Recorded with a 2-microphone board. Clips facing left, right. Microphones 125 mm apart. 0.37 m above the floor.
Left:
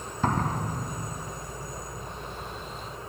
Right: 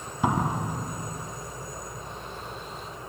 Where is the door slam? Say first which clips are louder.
Right 2 dB; 10° right (ahead or behind).